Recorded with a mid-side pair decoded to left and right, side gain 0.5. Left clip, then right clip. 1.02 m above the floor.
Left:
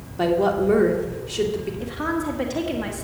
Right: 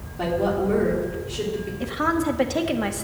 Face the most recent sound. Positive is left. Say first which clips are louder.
# right 6 dB
turn(degrees=-25)